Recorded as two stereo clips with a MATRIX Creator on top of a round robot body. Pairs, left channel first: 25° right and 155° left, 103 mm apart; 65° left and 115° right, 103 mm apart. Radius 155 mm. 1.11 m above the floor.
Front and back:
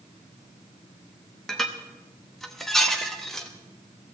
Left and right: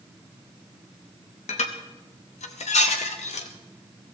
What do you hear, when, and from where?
1.5 s dishes clattering: 65° left, 0.9 m